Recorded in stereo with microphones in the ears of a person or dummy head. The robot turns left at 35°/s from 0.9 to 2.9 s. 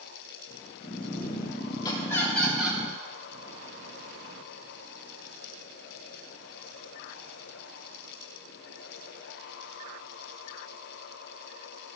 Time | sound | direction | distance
1.8 | laughter | 30° left | 3.5 m